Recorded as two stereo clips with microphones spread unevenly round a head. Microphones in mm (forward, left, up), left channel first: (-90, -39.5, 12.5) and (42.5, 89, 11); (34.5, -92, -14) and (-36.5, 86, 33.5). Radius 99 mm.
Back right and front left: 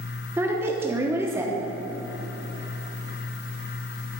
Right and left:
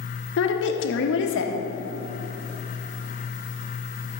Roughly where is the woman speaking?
Ahead right.